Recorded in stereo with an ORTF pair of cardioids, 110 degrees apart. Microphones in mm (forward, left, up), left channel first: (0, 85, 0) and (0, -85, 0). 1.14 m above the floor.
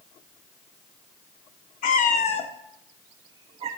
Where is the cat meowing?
60° left, 0.9 m; by 3.7 s 40° right, 0.8 m.